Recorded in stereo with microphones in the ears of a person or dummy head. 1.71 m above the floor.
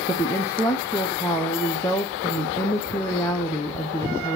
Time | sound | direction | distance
0.1 | a woman speaking | 20° left (ahead or behind) | 0.7 m